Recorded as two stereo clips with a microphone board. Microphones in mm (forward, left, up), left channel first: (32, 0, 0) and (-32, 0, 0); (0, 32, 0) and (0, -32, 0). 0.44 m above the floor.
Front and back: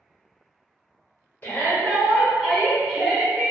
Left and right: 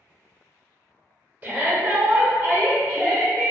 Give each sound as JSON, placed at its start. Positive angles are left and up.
{"t": 1.4, "sound": "a shout", "azimuth_deg": -45, "distance_m": 1.6}